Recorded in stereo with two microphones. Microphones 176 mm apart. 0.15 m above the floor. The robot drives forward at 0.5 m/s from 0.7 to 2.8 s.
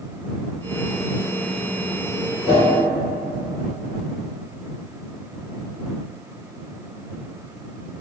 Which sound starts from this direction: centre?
A whoosh, at 2.4 s.